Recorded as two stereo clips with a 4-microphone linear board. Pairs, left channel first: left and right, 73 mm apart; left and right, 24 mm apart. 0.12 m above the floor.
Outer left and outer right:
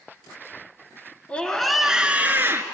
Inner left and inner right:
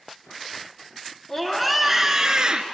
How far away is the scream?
About 1.5 m.